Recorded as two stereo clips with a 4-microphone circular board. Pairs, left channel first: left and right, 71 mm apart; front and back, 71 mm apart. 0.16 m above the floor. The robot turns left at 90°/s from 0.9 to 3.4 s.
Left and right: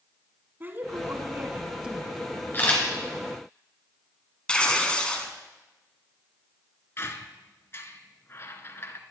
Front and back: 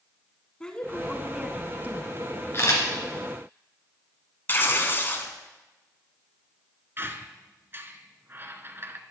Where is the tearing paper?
25° left, 1.0 m.